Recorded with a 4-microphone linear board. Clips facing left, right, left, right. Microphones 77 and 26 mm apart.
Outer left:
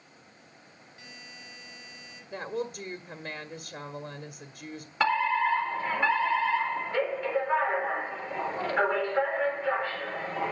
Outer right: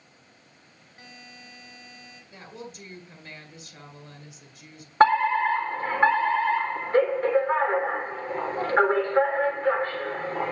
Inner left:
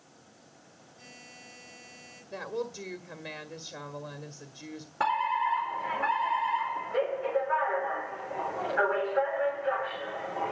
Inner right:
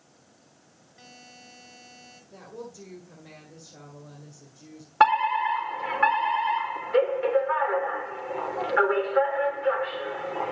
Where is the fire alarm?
40° right (ahead or behind), 3.5 m.